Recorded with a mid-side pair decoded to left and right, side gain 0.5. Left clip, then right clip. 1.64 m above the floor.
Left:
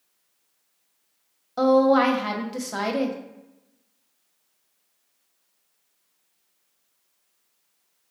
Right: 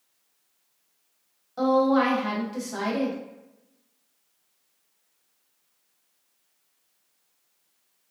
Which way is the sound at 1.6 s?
40° left.